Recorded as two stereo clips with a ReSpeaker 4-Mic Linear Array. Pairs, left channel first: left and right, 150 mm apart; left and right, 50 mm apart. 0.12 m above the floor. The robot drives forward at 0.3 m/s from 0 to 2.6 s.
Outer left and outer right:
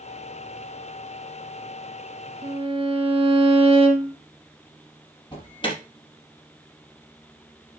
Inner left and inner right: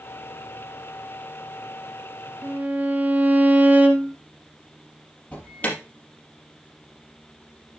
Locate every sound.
2.4 s a violin: 35° right (ahead or behind), 1.5 m; by 4.2 s 40° right (ahead or behind), 1.5 m
5.3 s an alarm: 30° left (ahead or behind), 3.5 m